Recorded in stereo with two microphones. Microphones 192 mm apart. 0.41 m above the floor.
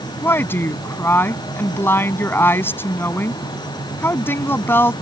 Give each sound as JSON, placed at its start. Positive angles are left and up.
{"t": 0.2, "sound": "a woman speaking", "side_deg": 10}